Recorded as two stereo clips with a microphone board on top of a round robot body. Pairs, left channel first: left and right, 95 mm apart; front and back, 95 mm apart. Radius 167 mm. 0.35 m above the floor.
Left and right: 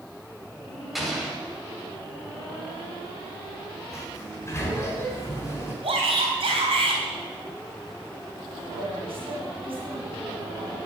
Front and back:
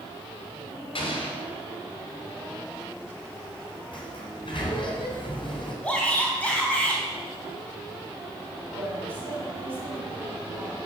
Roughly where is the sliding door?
Ahead left.